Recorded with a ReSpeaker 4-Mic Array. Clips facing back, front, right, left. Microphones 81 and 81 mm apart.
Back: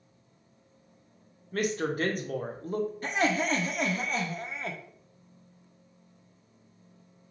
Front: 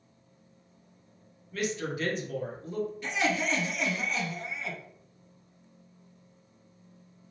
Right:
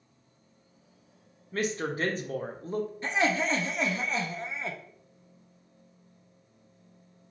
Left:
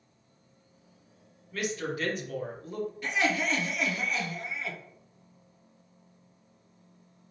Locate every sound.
1.5 s a woman speaking: 145° right, 0.6 m
3.0 s laughter: 145° right, 0.5 m